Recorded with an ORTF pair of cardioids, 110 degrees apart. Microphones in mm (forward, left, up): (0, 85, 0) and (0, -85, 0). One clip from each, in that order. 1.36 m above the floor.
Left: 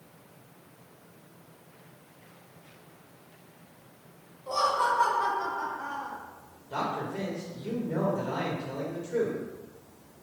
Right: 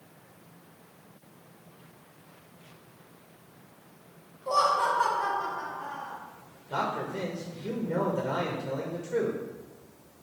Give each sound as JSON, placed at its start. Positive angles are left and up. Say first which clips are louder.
{"t": 4.5, "sound": "laughter", "louder": "right 2 dB", "azimuth_deg": -25, "distance_m": 1.1}
{"t": 6.7, "sound": "a man speaking", "louder": "right 1 dB", "azimuth_deg": -30, "distance_m": 1.1}